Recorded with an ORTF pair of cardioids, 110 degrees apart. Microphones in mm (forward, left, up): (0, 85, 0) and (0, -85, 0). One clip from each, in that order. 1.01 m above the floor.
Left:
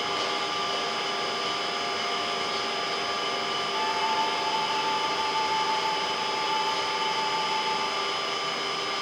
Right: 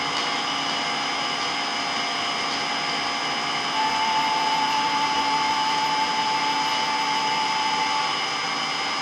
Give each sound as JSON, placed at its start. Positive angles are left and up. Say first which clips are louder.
{"t": 0.0, "sound": "an engine running", "louder": "right 3 dB", "azimuth_deg": -60, "distance_m": 4.5}
{"t": 3.7, "sound": "a flute", "louder": "right 5 dB", "azimuth_deg": -45, "distance_m": 2.5}